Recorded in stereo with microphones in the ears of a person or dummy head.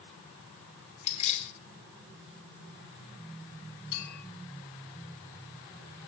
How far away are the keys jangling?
About 3 m.